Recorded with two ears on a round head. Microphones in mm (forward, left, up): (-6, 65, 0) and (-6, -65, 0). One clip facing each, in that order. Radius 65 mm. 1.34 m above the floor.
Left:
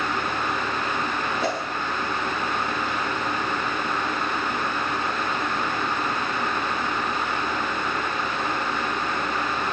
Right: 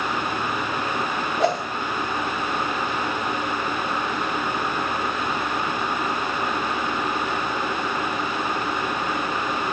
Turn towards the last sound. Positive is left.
turn(degrees=-65)  # may be behind; listen again after turning